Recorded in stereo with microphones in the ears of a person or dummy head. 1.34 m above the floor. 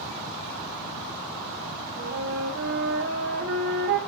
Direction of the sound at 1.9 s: 70° right (ahead or behind).